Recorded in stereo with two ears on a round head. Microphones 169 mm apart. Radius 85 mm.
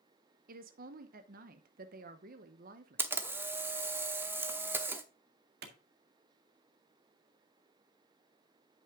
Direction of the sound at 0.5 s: 50° right (ahead or behind).